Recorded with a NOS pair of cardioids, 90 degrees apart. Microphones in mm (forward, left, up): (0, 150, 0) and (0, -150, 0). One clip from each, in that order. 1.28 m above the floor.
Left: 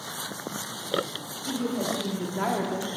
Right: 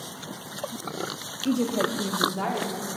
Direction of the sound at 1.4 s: 55° right.